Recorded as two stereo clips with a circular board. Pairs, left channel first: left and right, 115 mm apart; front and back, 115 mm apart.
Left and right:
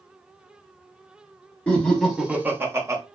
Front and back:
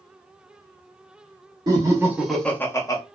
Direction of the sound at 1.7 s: 165° left.